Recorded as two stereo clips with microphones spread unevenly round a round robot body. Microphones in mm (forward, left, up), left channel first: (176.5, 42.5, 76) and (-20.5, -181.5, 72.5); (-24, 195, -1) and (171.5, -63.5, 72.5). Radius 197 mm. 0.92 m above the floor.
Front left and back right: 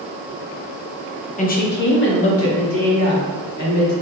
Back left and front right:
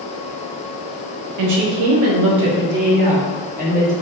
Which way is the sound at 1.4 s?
20° right.